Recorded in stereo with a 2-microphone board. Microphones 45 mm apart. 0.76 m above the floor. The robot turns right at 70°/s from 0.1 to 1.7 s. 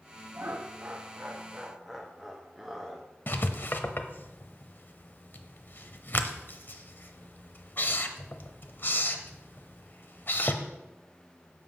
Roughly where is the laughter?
Right.